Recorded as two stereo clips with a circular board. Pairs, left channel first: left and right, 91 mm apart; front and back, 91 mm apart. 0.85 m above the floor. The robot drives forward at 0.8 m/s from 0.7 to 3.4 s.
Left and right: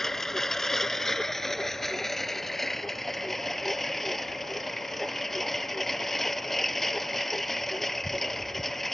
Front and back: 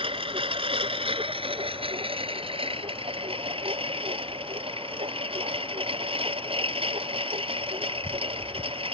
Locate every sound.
0.0 s a lawn mower: 175° left